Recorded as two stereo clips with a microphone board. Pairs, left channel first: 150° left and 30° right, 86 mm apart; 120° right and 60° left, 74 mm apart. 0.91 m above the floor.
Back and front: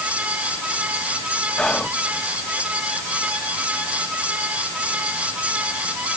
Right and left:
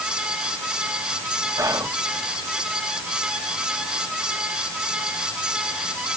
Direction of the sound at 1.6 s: 75° left.